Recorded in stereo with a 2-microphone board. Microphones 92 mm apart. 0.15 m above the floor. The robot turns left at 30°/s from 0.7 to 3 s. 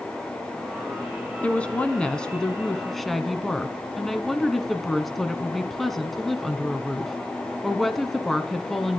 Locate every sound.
1.4 s a woman speaking: 15° left (ahead or behind), 1.0 m; by 9.0 s 5° left (ahead or behind), 1.0 m